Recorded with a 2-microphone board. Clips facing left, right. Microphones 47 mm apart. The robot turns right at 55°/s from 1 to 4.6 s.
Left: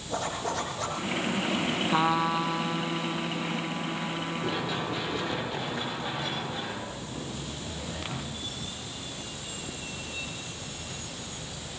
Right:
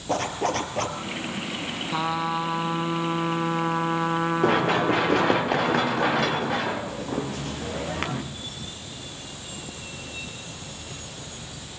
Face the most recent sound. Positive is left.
turn(degrees=-55)  # may be behind; listen again after turning